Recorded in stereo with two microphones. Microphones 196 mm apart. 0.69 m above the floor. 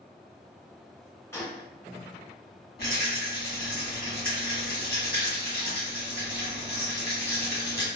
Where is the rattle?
55° left (ahead or behind), 1.0 m.